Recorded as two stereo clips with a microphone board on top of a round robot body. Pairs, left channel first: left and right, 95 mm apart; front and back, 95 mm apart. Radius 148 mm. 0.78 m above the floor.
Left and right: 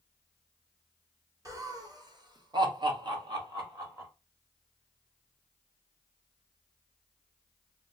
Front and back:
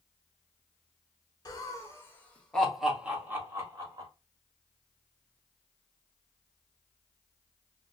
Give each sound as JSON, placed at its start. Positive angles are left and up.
{"t": 1.4, "sound": "laughter", "azimuth_deg": -45, "distance_m": 1.4}